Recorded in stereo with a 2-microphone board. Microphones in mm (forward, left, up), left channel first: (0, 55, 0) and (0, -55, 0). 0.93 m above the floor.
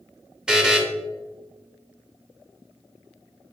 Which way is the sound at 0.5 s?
5° right (ahead or behind).